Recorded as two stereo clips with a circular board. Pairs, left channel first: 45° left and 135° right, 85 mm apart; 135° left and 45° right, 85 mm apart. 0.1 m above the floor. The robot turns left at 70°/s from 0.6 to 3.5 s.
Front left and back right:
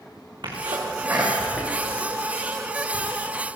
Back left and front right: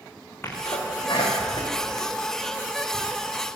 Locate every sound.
0.4 s a sneeze: 165° right, 7 m; by 3.0 s 30° left, 7 m